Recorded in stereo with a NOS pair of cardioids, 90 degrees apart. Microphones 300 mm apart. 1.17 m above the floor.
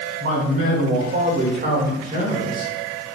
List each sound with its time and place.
0.2 s a man speaking: 50° right, 2.5 m; by 2.7 s 15° right, 2 m